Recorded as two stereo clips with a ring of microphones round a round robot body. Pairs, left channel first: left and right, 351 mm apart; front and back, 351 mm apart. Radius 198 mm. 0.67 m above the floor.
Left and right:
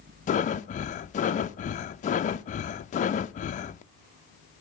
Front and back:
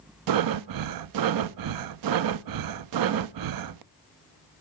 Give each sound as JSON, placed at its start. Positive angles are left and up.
{"t": 0.3, "sound": "breathing", "azimuth_deg": 160, "distance_m": 0.6}